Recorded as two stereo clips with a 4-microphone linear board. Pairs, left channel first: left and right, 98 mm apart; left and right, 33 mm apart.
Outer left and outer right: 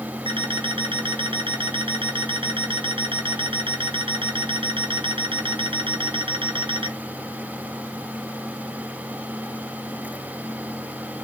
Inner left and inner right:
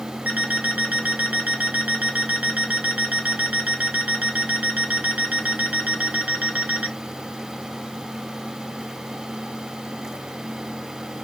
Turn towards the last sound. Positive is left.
turn(degrees=-60)  # may be behind; listen again after turning